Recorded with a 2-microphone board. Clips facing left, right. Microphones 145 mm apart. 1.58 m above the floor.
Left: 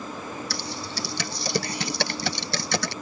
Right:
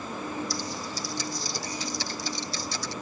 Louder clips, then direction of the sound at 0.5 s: Even; 75° left (ahead or behind).